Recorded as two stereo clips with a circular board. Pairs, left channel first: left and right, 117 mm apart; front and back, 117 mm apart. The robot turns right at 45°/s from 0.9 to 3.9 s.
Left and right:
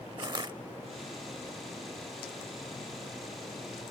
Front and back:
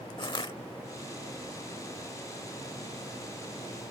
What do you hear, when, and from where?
0.2 s crushing: 45° right